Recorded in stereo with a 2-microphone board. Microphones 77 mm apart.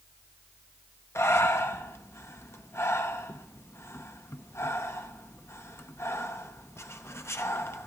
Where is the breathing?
35° left (ahead or behind), 0.7 m.